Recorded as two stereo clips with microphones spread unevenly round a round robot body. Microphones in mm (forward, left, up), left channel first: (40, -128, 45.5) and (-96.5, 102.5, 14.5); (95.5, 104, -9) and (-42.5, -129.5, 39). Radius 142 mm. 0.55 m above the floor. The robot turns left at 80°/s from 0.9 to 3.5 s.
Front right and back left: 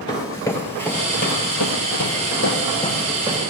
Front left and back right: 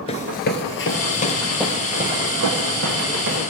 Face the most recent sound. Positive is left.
turn(degrees=180)